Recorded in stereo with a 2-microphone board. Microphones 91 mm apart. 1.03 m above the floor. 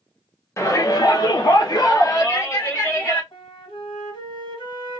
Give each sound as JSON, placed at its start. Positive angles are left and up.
{"t": 0.6, "sound": "a shout", "side_deg": 30, "distance_m": 0.6}
{"t": 3.3, "sound": "a flute", "side_deg": 60, "distance_m": 1.7}